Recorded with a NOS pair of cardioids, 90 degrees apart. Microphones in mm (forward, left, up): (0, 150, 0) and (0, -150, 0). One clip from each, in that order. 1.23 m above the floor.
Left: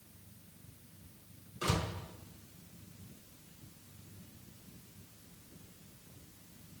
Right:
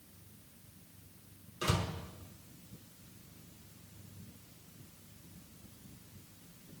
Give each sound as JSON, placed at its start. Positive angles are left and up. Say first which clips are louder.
{"t": 1.6, "sound": "a door slam", "louder": "even", "azimuth_deg": -5, "distance_m": 4.0}